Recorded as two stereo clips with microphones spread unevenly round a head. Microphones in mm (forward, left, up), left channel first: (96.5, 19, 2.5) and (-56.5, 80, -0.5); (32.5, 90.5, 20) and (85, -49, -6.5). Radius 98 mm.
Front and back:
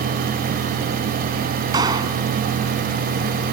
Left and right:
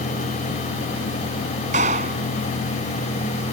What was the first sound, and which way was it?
A clap, 130° right.